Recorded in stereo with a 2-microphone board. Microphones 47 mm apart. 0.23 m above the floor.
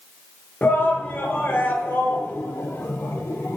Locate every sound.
0.6 s a shout: 40° left (ahead or behind), 4 m; by 3.6 s 60° left (ahead or behind), 4.5 m